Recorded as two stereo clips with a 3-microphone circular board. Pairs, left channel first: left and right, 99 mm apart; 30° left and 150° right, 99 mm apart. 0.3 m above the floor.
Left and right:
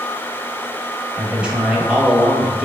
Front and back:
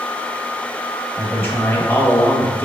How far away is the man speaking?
About 1.0 m.